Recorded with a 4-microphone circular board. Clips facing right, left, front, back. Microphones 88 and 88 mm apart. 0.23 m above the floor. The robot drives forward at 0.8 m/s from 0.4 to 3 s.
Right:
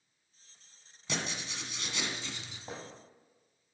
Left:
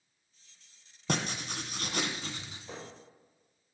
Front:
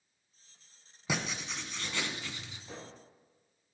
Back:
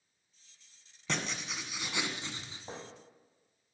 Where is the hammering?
135° right, 5 m; by 3.0 s 140° right, 5.5 m.